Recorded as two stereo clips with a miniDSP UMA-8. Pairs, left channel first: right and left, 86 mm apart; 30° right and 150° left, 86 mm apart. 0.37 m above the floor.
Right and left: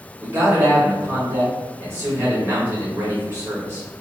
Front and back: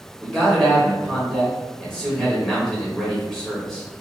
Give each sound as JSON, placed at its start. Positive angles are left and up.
{"t": 0.2, "sound": "a man speaking", "azimuth_deg": 50, "distance_m": 1.1}